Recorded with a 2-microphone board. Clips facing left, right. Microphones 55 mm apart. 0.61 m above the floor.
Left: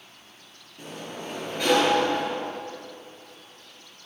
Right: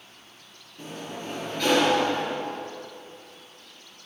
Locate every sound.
0.8 s a sliding door: 10° left (ahead or behind), 5.5 m